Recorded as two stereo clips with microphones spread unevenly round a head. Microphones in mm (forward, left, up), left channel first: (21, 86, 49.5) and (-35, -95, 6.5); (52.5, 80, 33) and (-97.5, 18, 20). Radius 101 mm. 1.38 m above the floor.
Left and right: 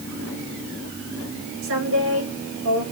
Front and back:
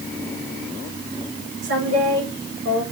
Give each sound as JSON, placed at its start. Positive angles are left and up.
{"t": 1.6, "sound": "a woman speaking", "azimuth_deg": -120, "distance_m": 5.5}